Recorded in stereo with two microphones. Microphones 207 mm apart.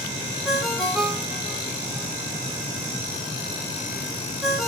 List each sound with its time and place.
0.5 s a ringtone: centre (ahead or behind), 2 m